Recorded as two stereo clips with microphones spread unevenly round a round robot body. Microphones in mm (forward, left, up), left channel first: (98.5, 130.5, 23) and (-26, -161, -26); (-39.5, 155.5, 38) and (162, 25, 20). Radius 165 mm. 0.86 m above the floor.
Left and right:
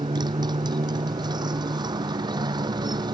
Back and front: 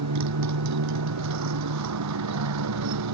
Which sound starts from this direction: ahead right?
A motorcycle, at 0.0 s.